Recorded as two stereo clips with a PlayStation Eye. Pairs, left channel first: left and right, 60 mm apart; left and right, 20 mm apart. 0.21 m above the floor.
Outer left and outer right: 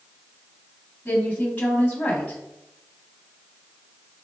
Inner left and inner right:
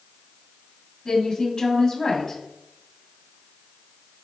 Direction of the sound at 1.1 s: 25° left (ahead or behind).